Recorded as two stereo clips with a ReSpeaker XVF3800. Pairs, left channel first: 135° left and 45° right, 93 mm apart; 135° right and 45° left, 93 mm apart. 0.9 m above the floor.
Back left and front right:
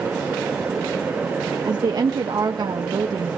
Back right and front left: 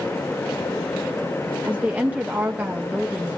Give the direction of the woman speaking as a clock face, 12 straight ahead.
1 o'clock.